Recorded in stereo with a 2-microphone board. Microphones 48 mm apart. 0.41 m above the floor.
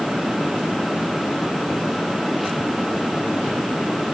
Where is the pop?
No pop in this recording.